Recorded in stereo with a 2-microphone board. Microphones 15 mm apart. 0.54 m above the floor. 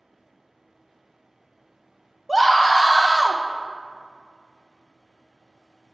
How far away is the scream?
About 0.8 m.